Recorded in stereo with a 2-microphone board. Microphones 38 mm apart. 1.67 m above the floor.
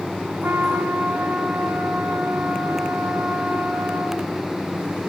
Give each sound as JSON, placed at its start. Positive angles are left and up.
{"t": 0.4, "sound": "a trumpet", "side_deg": -70, "distance_m": 4.5}